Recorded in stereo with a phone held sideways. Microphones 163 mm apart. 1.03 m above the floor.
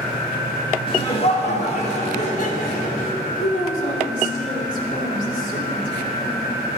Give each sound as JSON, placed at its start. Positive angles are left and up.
{"t": 0.9, "sound": "laughter", "side_deg": 30, "distance_m": 2.0}
{"t": 3.4, "sound": "a woman speaking", "side_deg": 50, "distance_m": 2.5}